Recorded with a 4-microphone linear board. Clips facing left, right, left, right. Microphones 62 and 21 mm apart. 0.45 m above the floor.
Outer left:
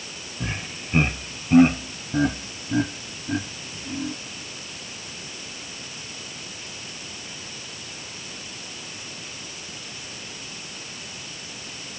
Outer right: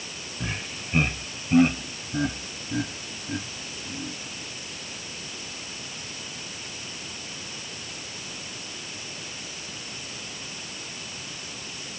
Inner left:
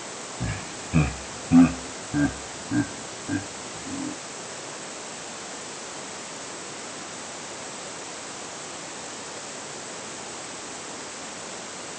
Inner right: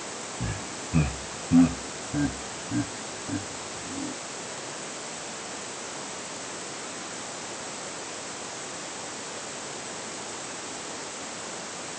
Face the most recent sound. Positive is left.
turn(degrees=30)  # may be behind; listen again after turning